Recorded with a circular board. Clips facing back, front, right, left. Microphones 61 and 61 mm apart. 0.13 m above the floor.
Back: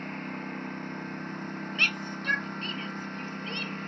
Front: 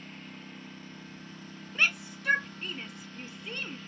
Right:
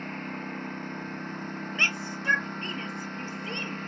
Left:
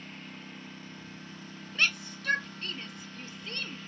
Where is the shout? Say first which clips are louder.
Front 1 dB, right 2 dB; 60° right.